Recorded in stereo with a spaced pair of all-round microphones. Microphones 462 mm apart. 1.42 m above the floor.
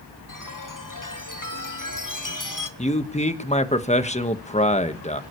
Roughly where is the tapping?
No tapping in this recording.